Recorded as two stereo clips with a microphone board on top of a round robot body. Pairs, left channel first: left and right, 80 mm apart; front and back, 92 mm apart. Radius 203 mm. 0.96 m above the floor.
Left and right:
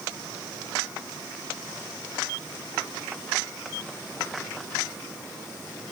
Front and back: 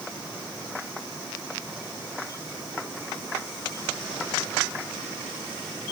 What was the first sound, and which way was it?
Only background noise.